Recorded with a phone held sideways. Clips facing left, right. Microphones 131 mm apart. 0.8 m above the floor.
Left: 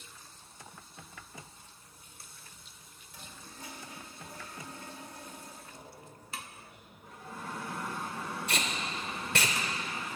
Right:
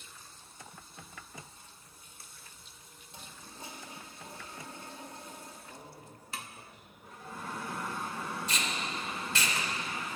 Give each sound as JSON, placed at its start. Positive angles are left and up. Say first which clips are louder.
{"t": 3.1, "sound": "a toilet flushing", "louder": "even", "side_deg": -25, "distance_m": 1.8}
{"t": 5.7, "sound": "a man speaking", "louder": "right 1 dB", "side_deg": -40, "distance_m": 2.5}
{"t": 8.5, "sound": "tape being pulled", "louder": "left 1 dB", "side_deg": 60, "distance_m": 1.2}